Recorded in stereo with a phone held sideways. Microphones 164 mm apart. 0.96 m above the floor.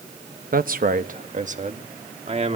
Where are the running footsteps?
No running footsteps in this recording.